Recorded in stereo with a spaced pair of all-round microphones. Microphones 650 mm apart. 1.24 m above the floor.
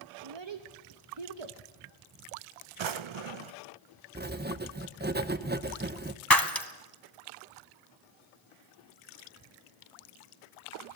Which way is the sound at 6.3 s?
35° left (ahead or behind).